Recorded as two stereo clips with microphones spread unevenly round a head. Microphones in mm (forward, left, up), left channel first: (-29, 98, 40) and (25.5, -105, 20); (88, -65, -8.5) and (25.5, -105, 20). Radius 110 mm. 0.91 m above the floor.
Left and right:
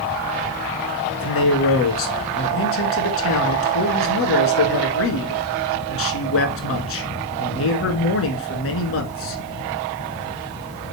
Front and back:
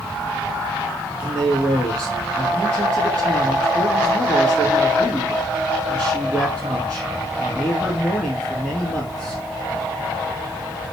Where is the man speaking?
100° left, 1.5 m.